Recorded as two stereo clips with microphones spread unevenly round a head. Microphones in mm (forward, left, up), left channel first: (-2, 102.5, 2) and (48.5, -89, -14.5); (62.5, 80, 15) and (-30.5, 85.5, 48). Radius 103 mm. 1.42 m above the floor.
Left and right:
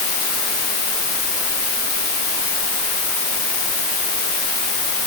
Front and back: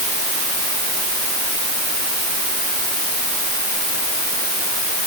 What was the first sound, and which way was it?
Only background noise.